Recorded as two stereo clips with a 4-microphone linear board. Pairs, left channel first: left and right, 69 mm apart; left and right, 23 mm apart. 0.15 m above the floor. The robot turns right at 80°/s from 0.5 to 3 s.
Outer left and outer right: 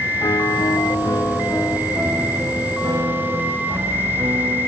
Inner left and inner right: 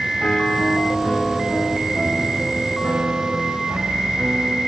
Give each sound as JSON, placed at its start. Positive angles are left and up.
{"t": 0.2, "sound": "a piano", "azimuth_deg": 75}